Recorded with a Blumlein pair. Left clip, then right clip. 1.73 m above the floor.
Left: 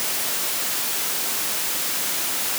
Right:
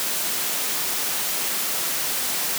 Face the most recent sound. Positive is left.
No sound to turn to.